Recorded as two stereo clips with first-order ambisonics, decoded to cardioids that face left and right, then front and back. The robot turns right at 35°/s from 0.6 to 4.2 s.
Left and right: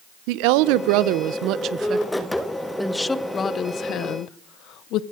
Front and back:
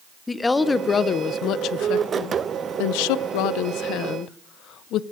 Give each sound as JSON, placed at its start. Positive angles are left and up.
{"t": 0.3, "sound": "a woman speaking", "azimuth_deg": -80, "distance_m": 0.6}